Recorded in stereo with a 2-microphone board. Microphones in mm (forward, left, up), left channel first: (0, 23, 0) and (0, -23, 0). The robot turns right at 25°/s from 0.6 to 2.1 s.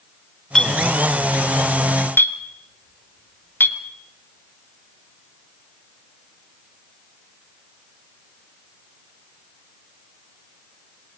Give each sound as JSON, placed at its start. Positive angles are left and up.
{"t": 0.6, "sound": "a clink", "side_deg": 15, "distance_m": 1.4}